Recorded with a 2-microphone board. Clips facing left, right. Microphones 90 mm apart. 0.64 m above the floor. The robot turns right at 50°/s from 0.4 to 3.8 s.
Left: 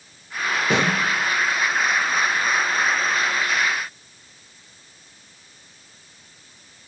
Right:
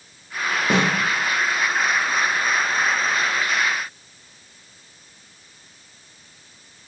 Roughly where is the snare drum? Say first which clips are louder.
Right 1 dB; right.